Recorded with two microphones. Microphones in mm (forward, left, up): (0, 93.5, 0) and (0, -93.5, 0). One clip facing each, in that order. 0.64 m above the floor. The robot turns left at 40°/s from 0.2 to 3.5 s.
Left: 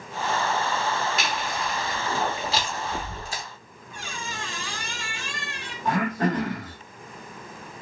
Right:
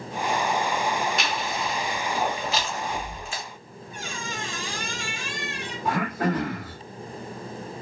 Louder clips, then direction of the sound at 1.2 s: Right 1 dB; centre (ahead or behind).